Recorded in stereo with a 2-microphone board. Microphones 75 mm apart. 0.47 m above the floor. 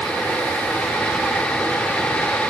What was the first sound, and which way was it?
Only background noise.